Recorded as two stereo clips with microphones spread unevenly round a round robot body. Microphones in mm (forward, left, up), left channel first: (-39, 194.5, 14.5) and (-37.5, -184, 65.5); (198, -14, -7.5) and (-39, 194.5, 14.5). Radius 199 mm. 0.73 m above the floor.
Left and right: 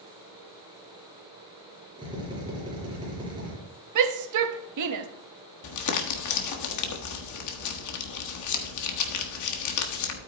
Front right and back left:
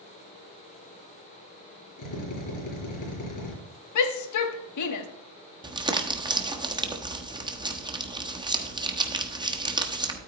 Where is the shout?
45° right, 1.1 m.